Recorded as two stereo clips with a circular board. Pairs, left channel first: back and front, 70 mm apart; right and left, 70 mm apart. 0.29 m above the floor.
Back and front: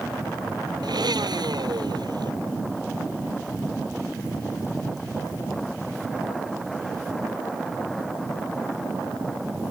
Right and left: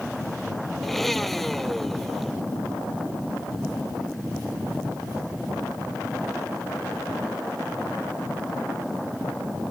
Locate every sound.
0.8 s a blender: straight ahead